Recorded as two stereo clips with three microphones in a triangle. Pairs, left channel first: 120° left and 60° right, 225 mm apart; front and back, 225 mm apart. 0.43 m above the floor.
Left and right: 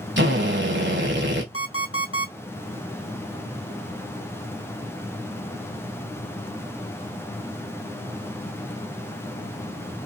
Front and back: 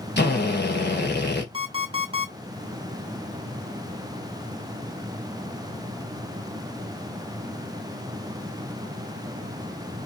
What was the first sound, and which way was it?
A drill, 35° right.